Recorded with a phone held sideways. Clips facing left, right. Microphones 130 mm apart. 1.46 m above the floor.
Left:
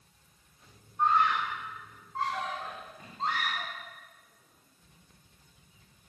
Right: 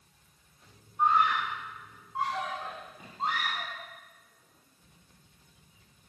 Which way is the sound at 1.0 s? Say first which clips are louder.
Right 1 dB; 10° right (ahead or behind).